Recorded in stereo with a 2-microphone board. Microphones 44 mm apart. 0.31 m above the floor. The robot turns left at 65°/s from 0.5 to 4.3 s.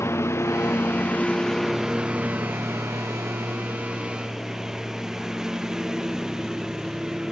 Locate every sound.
0.0 s a lawn mower: 75° left (ahead or behind); by 7.3 s 15° right (ahead or behind)